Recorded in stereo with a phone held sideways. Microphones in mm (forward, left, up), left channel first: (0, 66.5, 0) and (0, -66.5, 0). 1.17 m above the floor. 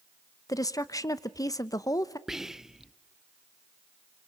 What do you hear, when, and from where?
0.5 s a woman speaking: 25° left (ahead or behind), 0.8 m
2.3 s whispering: 5° right (ahead or behind), 0.5 m